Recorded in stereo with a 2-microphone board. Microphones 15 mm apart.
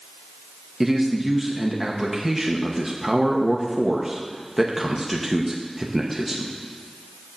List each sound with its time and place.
0.8 s a man speaking: 15° right (ahead or behind), 1.0 m